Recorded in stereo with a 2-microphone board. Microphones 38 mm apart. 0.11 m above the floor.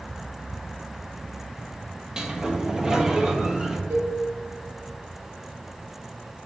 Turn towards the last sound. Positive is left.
turn(degrees=-70)  # may be behind; listen again after turning